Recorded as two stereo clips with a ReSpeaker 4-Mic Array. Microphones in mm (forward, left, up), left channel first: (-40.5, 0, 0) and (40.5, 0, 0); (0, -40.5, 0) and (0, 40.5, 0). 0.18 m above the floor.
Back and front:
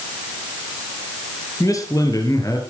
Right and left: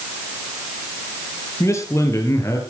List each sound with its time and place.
1.6 s a man speaking: 140° right, 4 m